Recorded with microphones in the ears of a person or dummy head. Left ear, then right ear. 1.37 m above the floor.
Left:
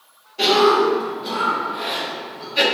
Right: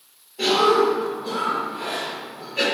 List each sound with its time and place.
0.4 s a cough: 30° left (ahead or behind), 0.8 m